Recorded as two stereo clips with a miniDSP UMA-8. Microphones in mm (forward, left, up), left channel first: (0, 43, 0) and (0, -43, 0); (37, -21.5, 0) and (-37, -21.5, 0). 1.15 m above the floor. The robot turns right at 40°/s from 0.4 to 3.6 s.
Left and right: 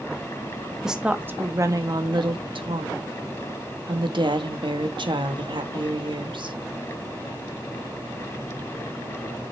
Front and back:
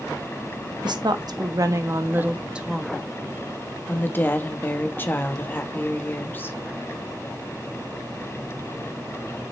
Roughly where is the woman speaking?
Behind.